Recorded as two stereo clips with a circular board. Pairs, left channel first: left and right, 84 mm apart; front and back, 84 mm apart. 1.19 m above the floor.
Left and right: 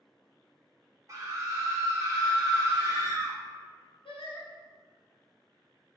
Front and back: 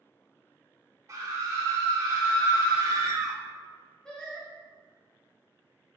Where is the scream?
135° right, 0.9 m.